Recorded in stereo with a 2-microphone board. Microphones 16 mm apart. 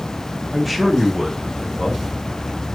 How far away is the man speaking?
About 0.9 m.